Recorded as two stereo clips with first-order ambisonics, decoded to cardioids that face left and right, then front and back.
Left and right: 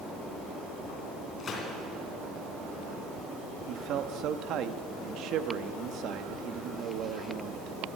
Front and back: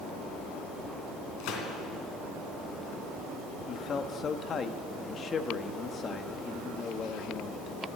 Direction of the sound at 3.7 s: 60° right.